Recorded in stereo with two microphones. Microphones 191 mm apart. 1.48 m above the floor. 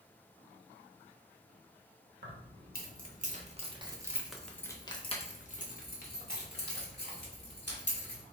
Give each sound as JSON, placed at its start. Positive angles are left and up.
{"t": 2.2, "sound": "keys jangling", "side_deg": -60, "distance_m": 1.2}